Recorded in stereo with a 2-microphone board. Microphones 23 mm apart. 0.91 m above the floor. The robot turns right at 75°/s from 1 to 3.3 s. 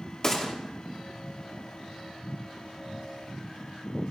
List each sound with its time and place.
0.2 s a gunshot: 30° left (ahead or behind), 2 m